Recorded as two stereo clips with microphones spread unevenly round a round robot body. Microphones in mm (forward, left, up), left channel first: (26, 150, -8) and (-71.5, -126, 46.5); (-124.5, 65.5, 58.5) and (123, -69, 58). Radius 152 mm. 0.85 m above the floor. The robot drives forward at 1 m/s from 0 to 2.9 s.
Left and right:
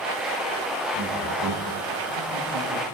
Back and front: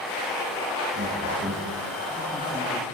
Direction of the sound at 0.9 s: 80° right.